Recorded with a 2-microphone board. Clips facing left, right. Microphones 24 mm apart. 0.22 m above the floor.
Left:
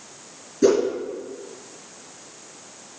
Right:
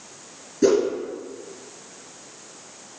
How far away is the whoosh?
About 3.5 m.